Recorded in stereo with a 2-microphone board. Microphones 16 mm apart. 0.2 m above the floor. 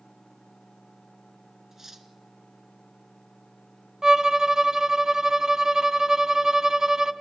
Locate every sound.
1.7 s cutlery clinking: 20° right (ahead or behind), 1.2 m
4.0 s a violin: 35° right (ahead or behind), 0.7 m